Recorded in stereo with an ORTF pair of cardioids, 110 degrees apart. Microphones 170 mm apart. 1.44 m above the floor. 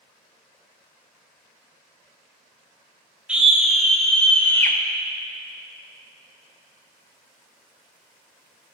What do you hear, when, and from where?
3.3 s a scream: 5° right, 2.5 m; by 4.8 s 15° left, 1.7 m